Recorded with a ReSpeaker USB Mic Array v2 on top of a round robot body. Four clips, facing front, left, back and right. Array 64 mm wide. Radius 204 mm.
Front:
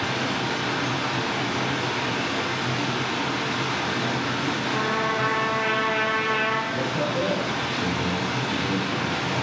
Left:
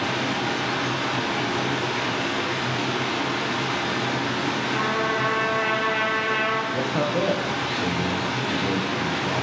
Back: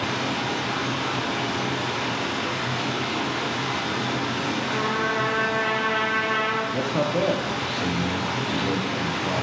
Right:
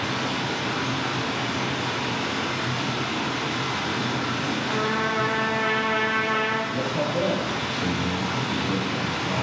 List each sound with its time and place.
0.0 s running water: 70° left, 0.8 m
4.7 s a trumpet: 30° left, 1.6 m
6.7 s a man speaking: 145° left, 0.6 m